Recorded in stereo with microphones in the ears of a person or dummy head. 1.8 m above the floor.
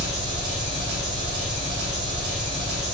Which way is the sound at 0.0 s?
50° right (ahead or behind).